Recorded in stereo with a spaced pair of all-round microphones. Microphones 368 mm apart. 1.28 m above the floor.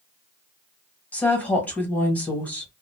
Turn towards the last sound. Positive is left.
turn(degrees=5)  # may be behind; listen again after turning